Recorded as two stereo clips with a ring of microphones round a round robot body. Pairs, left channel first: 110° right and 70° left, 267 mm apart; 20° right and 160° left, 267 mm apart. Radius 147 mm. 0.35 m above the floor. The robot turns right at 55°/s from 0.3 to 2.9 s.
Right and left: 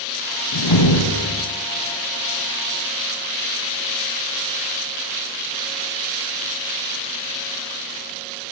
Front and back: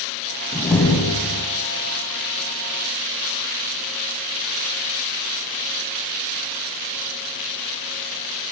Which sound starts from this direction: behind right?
A door slam, at 0.5 s.